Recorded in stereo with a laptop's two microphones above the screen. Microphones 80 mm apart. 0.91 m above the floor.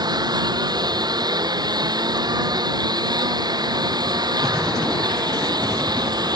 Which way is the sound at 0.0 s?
60° right (ahead or behind).